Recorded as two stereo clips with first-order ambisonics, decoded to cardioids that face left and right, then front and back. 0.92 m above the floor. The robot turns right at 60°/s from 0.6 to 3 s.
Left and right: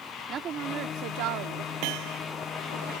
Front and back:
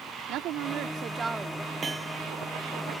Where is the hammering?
110° right; by 2.2 s 85° right.